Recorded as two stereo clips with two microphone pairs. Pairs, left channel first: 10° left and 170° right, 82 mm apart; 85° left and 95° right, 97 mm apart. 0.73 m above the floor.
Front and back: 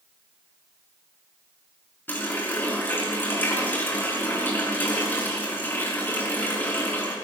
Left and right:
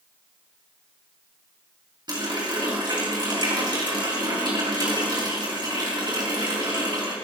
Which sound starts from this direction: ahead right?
A running tap, at 2.1 s.